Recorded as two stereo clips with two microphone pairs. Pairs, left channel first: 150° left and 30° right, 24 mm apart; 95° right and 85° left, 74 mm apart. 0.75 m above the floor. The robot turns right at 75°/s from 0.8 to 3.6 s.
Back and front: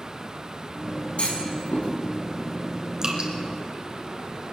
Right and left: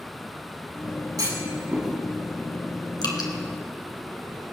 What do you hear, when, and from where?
1.2 s a clunk: 110° left, 5.5 m; by 1.9 s 165° left, 5.5 m
3.0 s dripping: 95° right, 2.5 m; by 3.3 s 75° right, 2.5 m